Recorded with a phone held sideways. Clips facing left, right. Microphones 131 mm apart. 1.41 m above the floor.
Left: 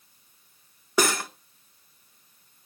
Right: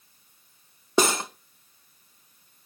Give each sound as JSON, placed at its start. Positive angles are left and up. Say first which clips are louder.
{"t": 1.0, "sound": "cutlery clinking", "louder": "right 2 dB", "side_deg": -25, "distance_m": 0.6}